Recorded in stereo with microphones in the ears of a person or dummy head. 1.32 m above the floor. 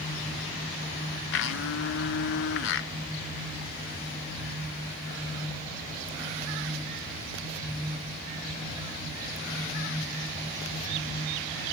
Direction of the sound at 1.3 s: 70° left (ahead or behind).